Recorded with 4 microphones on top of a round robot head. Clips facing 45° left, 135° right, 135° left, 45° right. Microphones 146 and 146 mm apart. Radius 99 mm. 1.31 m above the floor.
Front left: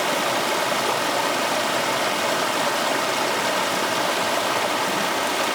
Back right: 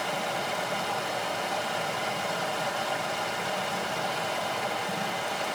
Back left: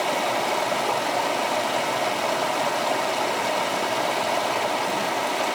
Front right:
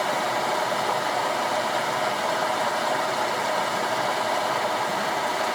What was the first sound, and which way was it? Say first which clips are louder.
Running water: front left 8 dB, back left 1 dB; 60° left.